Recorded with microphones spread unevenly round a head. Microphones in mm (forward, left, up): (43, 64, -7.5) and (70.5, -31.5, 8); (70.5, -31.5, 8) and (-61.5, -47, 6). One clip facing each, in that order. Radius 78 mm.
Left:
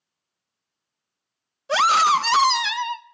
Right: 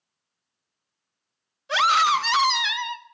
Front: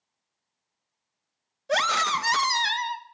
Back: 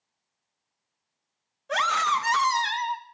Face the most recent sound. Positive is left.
turn(degrees=65)